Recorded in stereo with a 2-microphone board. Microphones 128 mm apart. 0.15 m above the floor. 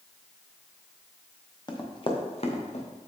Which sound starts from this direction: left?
Running footsteps, at 1.7 s.